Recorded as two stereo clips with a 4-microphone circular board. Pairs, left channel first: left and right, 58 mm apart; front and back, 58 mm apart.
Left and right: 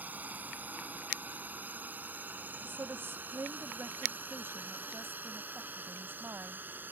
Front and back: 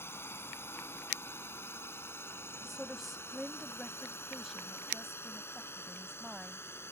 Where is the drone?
35° right; by 6.9 s 40° right.